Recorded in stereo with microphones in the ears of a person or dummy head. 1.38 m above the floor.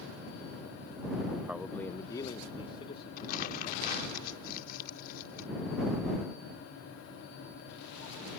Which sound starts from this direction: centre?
A man speaking, at 1.5 s.